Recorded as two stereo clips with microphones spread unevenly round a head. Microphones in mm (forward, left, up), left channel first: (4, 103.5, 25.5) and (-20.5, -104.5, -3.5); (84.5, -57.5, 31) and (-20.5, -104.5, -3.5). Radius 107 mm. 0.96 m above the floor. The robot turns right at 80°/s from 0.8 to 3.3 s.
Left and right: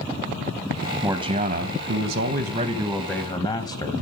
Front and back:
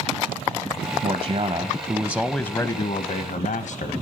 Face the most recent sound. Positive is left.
turn(degrees=10)